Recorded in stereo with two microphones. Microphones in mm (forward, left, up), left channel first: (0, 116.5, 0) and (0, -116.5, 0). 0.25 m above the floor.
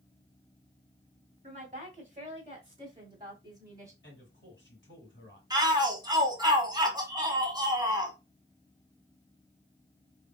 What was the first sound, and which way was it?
A woman speaking, 30° right (ahead or behind).